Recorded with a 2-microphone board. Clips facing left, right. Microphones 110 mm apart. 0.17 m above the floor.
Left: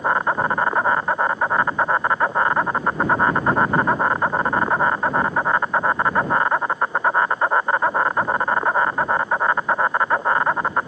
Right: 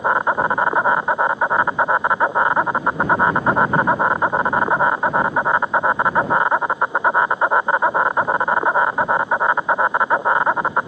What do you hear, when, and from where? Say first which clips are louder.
0.0 s an insect: right 2 dB; 15° right (ahead or behind)